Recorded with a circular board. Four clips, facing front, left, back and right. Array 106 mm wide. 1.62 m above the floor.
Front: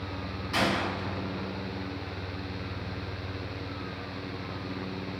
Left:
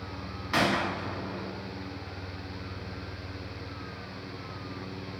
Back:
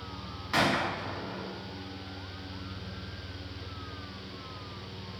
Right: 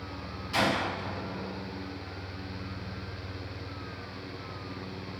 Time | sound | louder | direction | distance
0.5 | a gunshot | left 1 dB, back 1 dB | 120° left | 0.7 m